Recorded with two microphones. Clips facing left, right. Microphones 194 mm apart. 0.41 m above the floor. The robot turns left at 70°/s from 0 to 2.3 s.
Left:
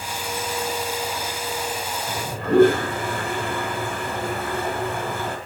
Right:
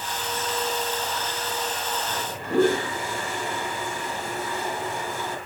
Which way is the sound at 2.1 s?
45° left (ahead or behind).